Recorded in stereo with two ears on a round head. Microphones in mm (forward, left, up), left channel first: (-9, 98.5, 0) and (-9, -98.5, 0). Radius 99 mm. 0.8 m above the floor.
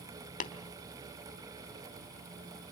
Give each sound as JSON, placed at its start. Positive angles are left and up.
{"t": 0.4, "sound": "tapping", "side_deg": 35, "distance_m": 1.2}